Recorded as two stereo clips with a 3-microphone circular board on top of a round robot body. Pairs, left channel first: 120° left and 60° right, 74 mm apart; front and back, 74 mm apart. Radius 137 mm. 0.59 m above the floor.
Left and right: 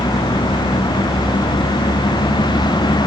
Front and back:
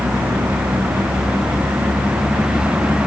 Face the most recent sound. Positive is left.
turn(degrees=100)